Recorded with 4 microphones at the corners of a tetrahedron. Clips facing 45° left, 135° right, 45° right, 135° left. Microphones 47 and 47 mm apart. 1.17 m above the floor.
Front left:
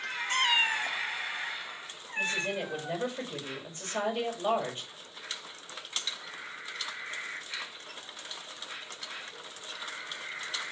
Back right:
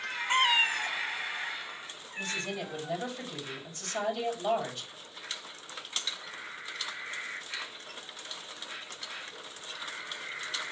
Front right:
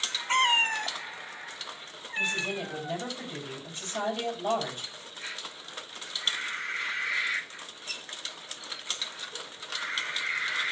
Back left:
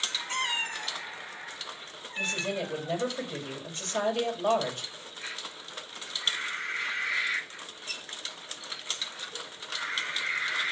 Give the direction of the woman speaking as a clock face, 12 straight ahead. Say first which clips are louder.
Front left 4 dB, front right 1 dB; 9 o'clock.